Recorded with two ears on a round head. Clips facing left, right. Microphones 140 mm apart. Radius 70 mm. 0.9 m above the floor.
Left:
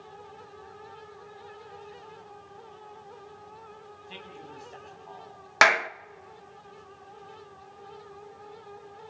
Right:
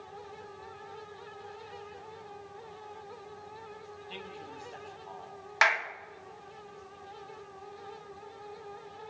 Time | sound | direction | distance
4.1 | a man speaking | 5° left (ahead or behind) | 7.5 m
5.6 | a clap | 60° left (ahead or behind) | 0.5 m